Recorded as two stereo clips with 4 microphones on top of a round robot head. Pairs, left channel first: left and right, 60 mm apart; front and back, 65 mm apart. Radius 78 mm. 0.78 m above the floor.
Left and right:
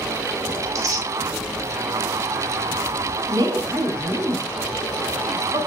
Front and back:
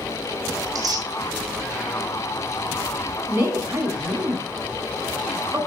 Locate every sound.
0.6 s tearing paper: 135° right, 2.5 m
3.3 s a woman speaking: 120° right, 3 m